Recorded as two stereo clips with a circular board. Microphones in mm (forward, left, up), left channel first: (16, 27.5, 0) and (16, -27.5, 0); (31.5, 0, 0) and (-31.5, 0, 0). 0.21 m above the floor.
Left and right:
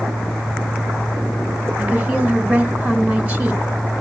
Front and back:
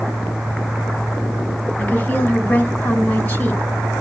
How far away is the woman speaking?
About 1.8 m.